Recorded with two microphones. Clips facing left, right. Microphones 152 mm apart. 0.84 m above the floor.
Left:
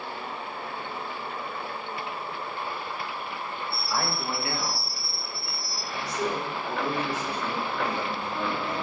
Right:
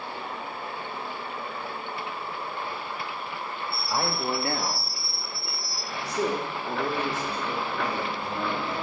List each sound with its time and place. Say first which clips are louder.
3.9 s a man speaking: right 3 dB; 20° right (ahead or behind), 1.1 m; by 8.7 s 25° right (ahead or behind), 3.5 m